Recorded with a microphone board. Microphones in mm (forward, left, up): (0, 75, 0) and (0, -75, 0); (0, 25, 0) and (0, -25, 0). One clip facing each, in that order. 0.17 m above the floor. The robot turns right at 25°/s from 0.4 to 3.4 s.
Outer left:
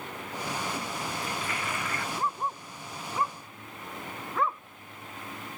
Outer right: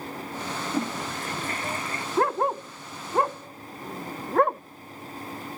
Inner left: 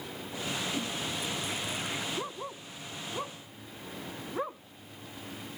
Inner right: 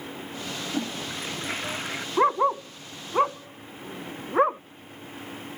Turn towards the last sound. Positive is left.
turn(degrees=-55)  # may be behind; listen again after turning